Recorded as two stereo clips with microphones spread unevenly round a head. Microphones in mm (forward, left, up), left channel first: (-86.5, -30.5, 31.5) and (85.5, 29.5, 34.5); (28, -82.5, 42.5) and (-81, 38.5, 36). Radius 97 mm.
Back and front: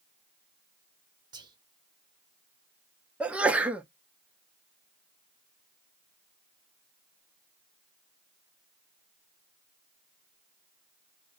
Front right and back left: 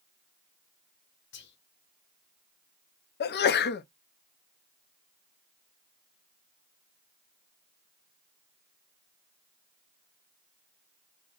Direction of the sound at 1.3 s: 50° right.